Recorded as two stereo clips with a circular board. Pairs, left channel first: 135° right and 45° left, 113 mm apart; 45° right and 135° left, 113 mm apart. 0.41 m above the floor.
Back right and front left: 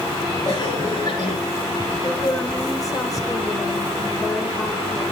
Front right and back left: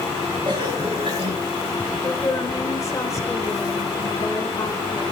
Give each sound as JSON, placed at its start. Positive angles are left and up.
{"t": 0.5, "sound": "a cough", "azimuth_deg": 170, "distance_m": 2.5}
{"t": 2.0, "sound": "a woman speaking", "azimuth_deg": -95, "distance_m": 1.7}